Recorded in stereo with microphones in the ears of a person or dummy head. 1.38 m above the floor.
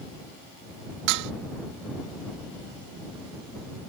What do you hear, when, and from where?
1.1 s dishes clattering: 60° right (ahead or behind)